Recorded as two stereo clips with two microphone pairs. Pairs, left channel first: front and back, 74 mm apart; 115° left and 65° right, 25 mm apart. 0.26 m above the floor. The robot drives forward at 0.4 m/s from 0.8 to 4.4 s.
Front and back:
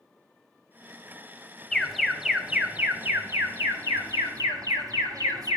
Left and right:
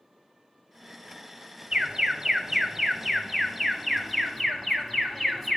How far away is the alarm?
About 0.8 m.